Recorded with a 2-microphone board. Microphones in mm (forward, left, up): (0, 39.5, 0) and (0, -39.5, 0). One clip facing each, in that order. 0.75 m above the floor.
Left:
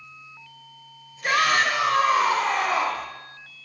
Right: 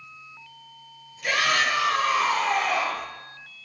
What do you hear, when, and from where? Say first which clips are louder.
1.2 s a shout: left 3 dB; 45° left (ahead or behind), 3.5 m; by 3.1 s 50° left (ahead or behind), 2.5 m